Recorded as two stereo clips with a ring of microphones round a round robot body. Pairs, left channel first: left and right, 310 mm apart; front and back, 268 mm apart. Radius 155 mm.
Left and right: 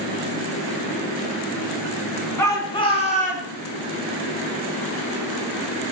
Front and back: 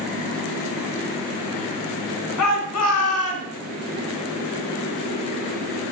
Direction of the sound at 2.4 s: 10° left.